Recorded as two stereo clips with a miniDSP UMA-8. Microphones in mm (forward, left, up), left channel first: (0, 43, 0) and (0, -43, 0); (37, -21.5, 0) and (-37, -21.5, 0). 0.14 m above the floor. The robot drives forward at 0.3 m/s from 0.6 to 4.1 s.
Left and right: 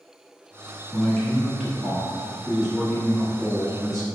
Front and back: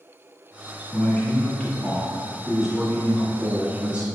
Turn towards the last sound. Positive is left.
turn(degrees=175)